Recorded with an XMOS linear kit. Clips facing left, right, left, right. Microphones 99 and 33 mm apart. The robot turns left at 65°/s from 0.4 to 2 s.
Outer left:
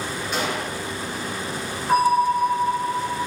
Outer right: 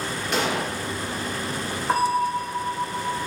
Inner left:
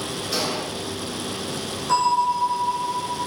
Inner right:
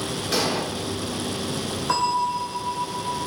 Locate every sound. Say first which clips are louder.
0.3 s an explosion: outer right 2 dB, inner right 3 dB; 85° right, 1.9 m; by 0.7 s 80° right, 1.9 m
1.9 s a bell: outer left 4 dB, inner left 4 dB; 25° right (ahead or behind), 3 m; by 3.2 s 15° right (ahead or behind), 3 m